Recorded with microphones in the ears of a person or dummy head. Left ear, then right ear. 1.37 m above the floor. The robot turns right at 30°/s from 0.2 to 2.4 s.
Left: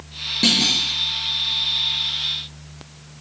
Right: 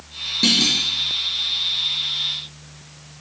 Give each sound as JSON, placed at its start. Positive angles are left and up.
{"t": 0.4, "sound": "a clunk", "side_deg": 20, "distance_m": 0.6}